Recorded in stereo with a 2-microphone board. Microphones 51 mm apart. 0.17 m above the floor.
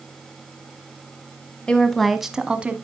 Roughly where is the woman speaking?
Centre.